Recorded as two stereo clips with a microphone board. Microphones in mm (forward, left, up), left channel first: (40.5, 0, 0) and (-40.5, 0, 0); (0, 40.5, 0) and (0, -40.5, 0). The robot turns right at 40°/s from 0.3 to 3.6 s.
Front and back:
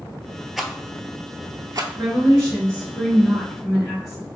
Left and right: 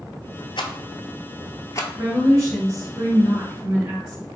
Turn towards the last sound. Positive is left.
turn(degrees=-75)